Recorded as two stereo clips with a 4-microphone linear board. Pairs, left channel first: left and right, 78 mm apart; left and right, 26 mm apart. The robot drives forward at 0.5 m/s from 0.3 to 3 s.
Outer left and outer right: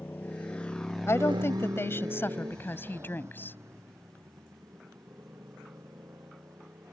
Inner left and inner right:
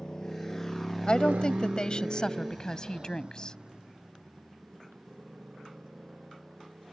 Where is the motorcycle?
25° left (ahead or behind); by 6.9 s 35° right (ahead or behind).